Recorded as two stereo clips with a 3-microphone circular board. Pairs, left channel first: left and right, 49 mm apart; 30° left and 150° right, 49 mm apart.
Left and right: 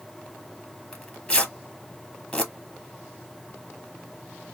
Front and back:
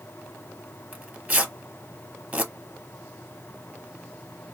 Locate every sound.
0.9 s tearing paper: 155° left, 1.0 m